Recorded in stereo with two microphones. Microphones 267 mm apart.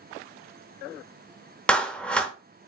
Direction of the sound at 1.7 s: 5° left (ahead or behind).